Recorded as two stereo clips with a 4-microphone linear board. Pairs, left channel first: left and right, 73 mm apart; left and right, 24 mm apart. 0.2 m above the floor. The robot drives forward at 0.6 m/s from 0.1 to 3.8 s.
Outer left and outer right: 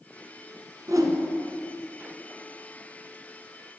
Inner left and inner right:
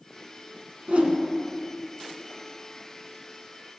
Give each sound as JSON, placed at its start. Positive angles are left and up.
{"t": 0.9, "sound": "a whoosh", "side_deg": -55, "distance_m": 1.4}